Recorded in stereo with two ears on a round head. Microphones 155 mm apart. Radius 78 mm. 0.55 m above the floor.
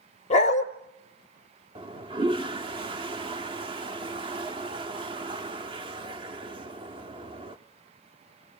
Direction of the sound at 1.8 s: 30° right (ahead or behind).